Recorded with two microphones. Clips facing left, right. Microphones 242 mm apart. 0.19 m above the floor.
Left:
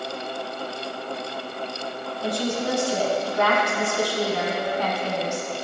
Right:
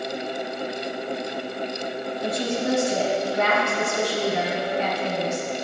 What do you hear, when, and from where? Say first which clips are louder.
2.2 s a woman speaking: even; 20° right (ahead or behind), 1.3 m